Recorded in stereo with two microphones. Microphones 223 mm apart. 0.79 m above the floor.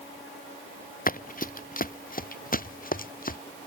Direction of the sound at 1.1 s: 40° left (ahead or behind).